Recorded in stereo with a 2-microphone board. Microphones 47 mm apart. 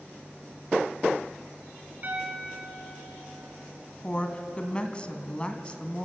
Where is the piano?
35° right (ahead or behind), 3 m.